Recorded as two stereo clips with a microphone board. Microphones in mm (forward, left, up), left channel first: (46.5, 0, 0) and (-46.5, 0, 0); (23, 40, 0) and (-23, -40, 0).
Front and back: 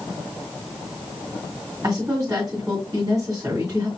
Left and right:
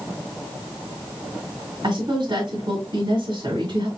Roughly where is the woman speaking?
Behind right.